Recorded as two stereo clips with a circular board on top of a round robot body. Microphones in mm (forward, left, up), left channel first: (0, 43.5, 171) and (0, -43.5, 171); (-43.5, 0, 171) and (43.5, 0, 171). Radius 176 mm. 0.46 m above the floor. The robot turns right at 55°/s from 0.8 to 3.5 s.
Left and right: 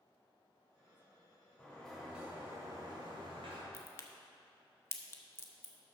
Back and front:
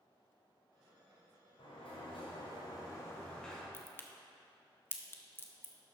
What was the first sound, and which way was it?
A sliding door, 160° left.